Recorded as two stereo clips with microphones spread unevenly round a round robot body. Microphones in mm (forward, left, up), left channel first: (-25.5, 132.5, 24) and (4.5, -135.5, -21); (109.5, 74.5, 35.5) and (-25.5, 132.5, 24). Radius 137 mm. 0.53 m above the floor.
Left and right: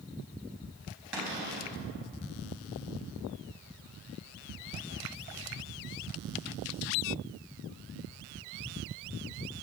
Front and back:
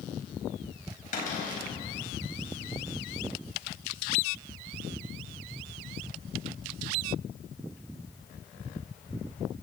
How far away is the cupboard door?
About 4.5 m.